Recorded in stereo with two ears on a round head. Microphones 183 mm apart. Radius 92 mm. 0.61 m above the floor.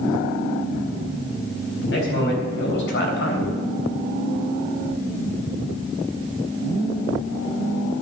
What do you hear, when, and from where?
1.8 s a man speaking: 65° left (ahead or behind), 4.5 m; by 3.6 s 60° left (ahead or behind), 3.5 m